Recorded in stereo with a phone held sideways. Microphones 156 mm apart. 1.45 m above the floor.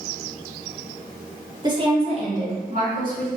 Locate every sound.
1.6 s a woman speaking: 25° right (ahead or behind), 1.1 m; by 3.3 s 60° right (ahead or behind), 2.5 m